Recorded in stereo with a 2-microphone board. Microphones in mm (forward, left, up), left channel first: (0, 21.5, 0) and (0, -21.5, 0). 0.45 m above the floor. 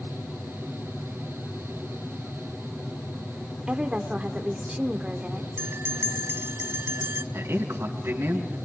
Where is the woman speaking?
25° right (ahead or behind), 1.2 m.